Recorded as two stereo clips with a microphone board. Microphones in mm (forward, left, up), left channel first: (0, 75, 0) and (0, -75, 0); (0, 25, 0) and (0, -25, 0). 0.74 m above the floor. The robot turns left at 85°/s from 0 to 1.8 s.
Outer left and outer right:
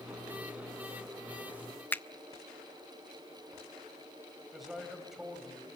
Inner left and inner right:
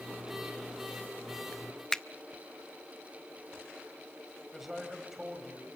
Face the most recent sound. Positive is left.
turn(degrees=0)  # may be behind; listen again after turning